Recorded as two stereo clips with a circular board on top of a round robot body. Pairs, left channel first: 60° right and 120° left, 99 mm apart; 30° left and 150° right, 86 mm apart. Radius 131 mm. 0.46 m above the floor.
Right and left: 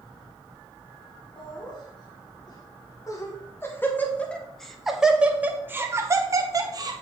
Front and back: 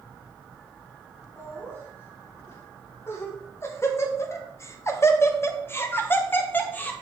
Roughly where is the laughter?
Ahead right.